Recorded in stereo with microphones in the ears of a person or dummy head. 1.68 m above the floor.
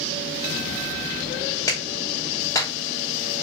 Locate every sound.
1.7 s a clap: 15° left (ahead or behind), 2 m